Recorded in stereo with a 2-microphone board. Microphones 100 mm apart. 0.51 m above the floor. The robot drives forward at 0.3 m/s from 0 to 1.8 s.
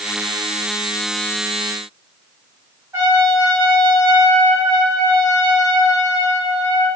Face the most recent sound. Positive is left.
turn(degrees=-30)  # may be behind; listen again after turning